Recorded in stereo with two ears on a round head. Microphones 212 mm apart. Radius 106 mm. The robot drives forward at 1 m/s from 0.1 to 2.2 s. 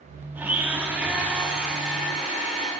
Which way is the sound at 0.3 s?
10° right (ahead or behind).